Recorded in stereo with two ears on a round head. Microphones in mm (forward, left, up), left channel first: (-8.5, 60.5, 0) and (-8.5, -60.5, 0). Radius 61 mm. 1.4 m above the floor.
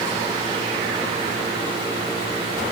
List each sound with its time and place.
Only background noise.